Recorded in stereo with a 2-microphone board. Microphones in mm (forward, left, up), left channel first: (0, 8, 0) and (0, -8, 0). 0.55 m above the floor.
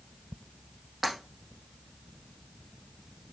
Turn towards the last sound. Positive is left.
turn(degrees=-5)  # may be behind; listen again after turning